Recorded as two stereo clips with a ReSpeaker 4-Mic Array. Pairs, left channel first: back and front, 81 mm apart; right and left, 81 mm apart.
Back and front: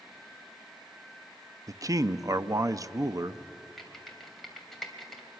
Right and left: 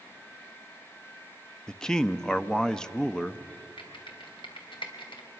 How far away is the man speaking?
About 0.6 m.